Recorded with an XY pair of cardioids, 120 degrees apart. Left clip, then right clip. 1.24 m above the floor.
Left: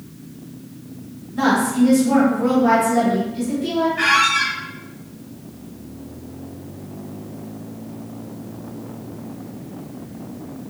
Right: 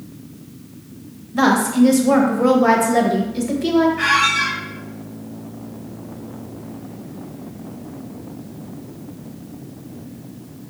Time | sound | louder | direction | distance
1.3 | a woman speaking | right 2 dB | 55° right | 1.0 m
4.0 | a squeak | even | 35° left | 1.7 m